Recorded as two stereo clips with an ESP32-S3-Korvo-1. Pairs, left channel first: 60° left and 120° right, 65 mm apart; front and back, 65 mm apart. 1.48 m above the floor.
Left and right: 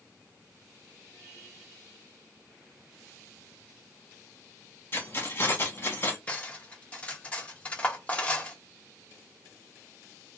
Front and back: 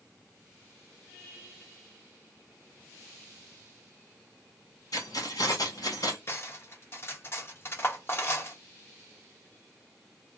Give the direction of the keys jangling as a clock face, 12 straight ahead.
12 o'clock.